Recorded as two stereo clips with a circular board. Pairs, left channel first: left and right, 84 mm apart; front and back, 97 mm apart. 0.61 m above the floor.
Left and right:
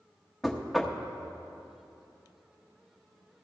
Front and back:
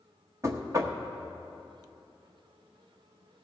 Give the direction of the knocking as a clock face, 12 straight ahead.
6 o'clock.